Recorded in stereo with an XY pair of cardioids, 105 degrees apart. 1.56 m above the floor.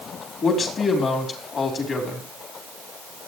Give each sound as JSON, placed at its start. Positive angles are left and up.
{"t": 0.4, "sound": "a man speaking", "azimuth_deg": 55, "distance_m": 4.5}